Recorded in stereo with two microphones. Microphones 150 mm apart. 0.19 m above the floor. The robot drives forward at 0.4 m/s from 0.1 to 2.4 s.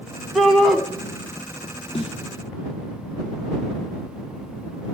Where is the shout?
Centre (ahead or behind), 1.6 m.